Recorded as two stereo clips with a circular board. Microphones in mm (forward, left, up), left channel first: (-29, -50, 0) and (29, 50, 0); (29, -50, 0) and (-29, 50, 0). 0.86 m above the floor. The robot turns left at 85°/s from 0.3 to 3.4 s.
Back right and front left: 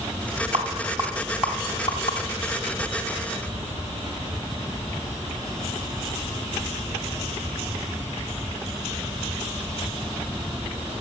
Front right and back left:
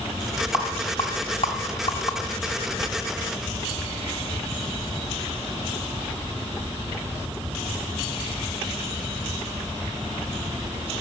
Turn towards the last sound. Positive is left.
turn(degrees=170)